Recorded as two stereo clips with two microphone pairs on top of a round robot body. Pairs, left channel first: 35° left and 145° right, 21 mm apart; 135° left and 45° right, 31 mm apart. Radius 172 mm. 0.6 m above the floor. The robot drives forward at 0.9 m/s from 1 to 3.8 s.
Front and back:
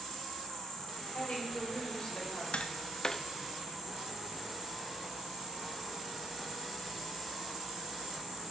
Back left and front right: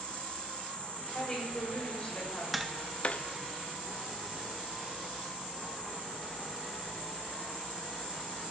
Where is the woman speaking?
55° left, 3 m; by 2.4 s 80° left, 2.5 m.